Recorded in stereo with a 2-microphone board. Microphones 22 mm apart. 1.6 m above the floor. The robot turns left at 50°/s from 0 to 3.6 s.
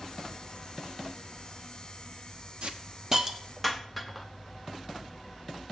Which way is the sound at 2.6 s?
50° right (ahead or behind).